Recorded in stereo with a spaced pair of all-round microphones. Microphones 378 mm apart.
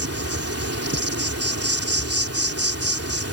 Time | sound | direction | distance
0.0 | an insect | 40° right (ahead or behind) | ?